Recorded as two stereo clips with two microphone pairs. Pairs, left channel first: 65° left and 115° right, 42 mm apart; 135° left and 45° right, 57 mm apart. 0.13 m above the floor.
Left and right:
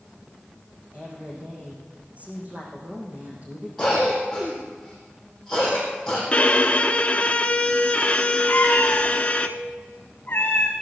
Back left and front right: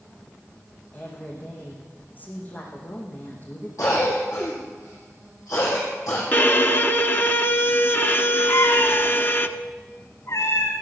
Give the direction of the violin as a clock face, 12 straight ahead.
8 o'clock.